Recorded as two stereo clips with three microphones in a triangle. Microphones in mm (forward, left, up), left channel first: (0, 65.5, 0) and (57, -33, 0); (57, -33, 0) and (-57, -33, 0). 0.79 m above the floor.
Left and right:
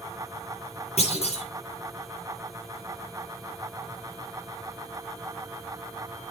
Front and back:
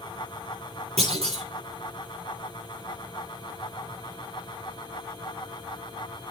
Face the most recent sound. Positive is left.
turn(degrees=150)